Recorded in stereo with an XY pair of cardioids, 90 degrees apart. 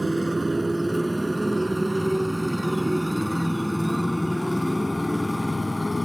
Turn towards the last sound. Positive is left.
turn(degrees=15)